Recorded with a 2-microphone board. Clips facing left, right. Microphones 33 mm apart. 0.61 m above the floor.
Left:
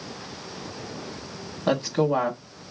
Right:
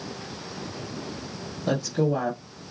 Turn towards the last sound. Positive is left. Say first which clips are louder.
# left 2 dB
turn(degrees=45)  # may be behind; listen again after turning